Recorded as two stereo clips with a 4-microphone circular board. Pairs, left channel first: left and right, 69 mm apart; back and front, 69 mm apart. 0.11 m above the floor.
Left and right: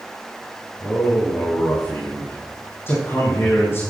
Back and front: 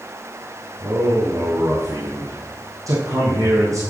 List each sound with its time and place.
0.8 s a man speaking: 35° left, 5.5 m